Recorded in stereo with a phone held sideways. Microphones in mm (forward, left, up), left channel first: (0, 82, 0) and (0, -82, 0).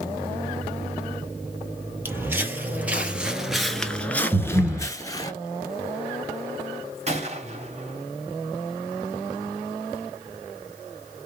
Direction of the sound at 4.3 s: 10° right (ahead or behind).